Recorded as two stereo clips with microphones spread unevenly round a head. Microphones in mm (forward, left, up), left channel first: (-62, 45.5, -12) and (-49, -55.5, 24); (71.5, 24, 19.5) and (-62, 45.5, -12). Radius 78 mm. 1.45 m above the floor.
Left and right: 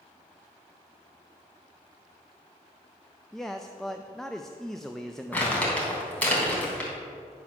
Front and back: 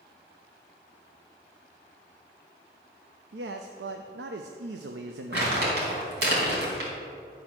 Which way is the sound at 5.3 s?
Straight behind.